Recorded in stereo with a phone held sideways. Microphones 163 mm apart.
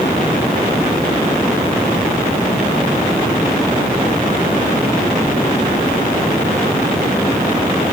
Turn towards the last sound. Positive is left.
No sound to turn to.